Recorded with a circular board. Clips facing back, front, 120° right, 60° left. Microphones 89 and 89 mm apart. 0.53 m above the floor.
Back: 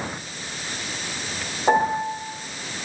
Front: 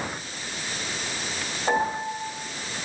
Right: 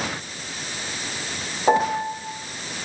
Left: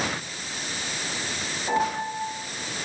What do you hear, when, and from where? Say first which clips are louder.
1.7 s a piano: back 5 dB, right 6 dB; 115° right, 1.6 m